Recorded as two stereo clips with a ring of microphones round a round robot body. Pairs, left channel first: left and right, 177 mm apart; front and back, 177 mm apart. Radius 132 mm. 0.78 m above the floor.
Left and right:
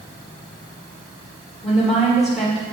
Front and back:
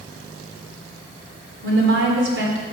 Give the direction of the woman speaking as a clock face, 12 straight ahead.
6 o'clock.